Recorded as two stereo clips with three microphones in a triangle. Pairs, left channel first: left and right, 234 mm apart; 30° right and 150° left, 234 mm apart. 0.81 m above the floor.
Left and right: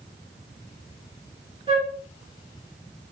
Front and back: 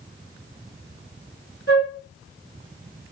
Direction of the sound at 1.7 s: 25° right.